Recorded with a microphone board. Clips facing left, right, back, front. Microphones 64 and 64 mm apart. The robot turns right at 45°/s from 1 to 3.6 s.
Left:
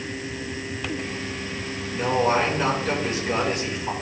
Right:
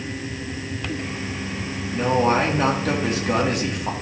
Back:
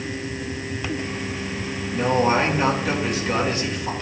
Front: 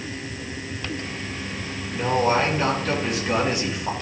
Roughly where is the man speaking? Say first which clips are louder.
Right 2 dB, back 1 dB; behind right.